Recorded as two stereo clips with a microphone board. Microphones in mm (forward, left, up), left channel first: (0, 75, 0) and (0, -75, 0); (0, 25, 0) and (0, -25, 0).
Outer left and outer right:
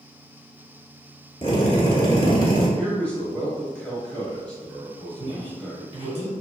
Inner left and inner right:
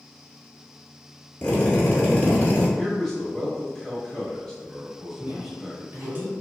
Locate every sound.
1.4 s a drill: 30° left (ahead or behind), 1.1 m
2.8 s a man speaking: 10° left (ahead or behind), 0.9 m
5.2 s a woman speaking: 25° right (ahead or behind), 1.2 m